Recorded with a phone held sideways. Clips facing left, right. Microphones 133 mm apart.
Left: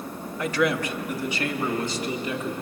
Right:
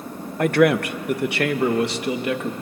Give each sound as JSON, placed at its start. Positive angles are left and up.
{"t": 0.4, "sound": "a man speaking", "side_deg": -60, "distance_m": 0.7}